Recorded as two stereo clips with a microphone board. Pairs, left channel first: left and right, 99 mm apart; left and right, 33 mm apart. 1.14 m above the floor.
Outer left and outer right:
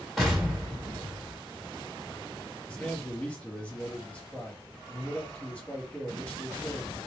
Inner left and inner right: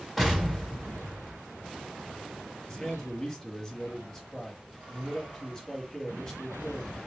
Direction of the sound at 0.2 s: Centre (ahead or behind).